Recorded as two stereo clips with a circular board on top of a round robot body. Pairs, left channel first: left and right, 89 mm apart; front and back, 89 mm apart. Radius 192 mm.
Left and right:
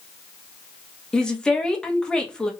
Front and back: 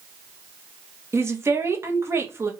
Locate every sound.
1.1 s a woman speaking: 165° left, 1.1 m